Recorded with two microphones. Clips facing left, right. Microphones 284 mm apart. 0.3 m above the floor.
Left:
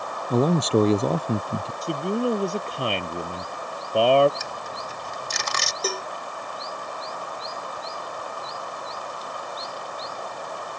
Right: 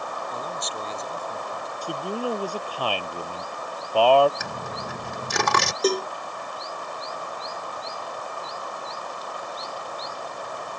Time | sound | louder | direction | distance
0.3 | a man speaking | left 15 dB | 80° left | ?
1.8 | a man speaking | left 4 dB | 25° left (ahead or behind) | ?
4.4 | a dropped coin | right 2 dB | 75° right (ahead or behind) | ?
5.8 | a cowbell | right 8 dB | 40° right (ahead or behind) | ?